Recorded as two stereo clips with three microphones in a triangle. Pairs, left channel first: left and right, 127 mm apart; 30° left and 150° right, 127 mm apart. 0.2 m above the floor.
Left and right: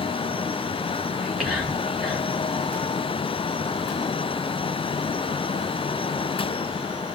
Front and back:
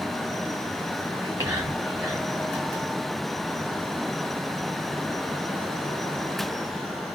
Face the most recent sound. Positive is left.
turn(degrees=-170)